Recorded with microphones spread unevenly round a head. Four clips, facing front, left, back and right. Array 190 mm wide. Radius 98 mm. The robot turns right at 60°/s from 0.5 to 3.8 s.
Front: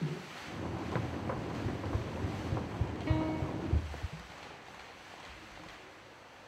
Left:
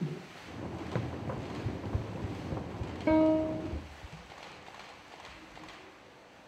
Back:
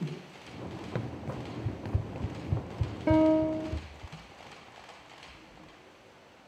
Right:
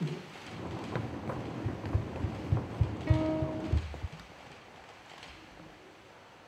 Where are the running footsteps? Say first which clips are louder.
Left 1 dB, back 1 dB; 165° left; by 4.1 s 65° right.